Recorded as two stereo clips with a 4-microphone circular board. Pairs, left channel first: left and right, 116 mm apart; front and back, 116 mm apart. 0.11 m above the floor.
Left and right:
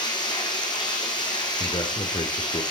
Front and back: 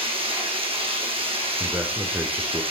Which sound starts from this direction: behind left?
Running water, at 0.0 s.